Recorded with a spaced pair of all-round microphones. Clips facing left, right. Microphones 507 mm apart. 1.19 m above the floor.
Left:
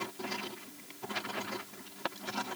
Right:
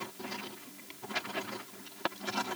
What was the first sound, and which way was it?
Only background noise.